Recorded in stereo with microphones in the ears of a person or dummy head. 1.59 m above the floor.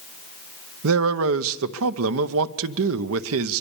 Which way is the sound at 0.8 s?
80° right.